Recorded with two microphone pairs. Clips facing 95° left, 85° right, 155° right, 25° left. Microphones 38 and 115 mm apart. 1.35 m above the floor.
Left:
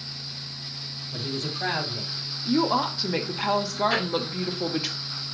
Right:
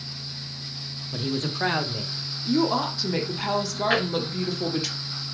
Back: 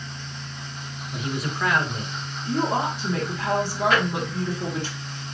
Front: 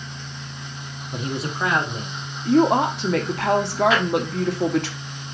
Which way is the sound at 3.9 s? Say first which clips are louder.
Right 6 dB, front 1 dB; 120° right.